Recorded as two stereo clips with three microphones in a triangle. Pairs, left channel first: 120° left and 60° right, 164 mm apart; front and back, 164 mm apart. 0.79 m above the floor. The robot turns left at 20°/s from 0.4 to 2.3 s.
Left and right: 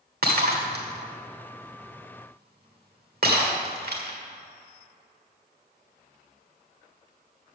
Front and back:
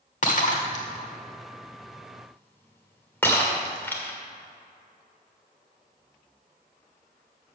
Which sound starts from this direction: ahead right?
Breaking glass, at 0.2 s.